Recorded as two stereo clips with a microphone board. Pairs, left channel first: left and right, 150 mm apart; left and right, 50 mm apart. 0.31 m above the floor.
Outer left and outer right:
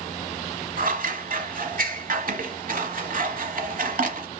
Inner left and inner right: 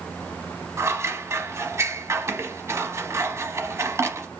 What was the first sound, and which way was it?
Scissors, 70° right (ahead or behind).